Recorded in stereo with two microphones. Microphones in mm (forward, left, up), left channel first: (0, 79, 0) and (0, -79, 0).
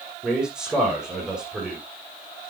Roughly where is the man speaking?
Centre.